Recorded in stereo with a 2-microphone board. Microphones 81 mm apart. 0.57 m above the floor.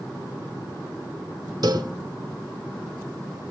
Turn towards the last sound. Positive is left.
turn(degrees=-60)  # may be behind; listen again after turning